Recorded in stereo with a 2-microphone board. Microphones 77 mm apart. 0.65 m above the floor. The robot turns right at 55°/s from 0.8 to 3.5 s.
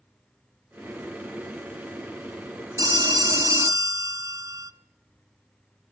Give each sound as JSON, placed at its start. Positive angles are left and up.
{"t": 2.8, "sound": "a phone ringing", "azimuth_deg": -100, "distance_m": 0.5}